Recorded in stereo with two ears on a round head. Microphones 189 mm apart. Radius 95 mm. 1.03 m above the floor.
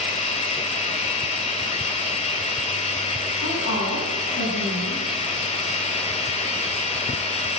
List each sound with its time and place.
0.0 s running water: 30° left (ahead or behind), 3 m
3.4 s a woman speaking: 60° left (ahead or behind), 8 m